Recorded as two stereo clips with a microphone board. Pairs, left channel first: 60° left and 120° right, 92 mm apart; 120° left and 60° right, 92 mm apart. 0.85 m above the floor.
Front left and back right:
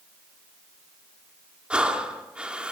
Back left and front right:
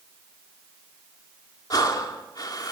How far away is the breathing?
About 2.5 m.